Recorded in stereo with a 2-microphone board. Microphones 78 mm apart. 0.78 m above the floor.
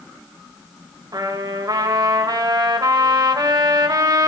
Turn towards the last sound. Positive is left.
turn(degrees=-60)  # may be behind; listen again after turning